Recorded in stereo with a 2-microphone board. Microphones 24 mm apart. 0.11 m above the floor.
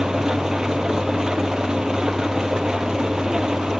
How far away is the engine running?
About 0.9 m.